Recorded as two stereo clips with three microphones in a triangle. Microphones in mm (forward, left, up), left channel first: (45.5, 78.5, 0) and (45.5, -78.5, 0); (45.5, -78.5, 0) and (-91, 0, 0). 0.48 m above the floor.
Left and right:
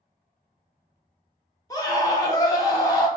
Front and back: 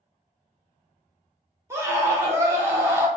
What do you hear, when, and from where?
1.7 s a scream: 105° left, 1.0 m